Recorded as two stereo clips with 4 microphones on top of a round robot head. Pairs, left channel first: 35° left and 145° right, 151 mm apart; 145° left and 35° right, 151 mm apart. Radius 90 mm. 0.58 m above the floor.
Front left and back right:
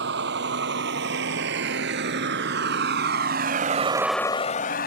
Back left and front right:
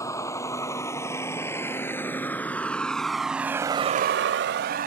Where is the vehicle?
140° right; by 4.9 s straight ahead.